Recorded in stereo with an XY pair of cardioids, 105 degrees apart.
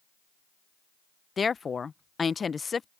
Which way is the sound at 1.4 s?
30° left.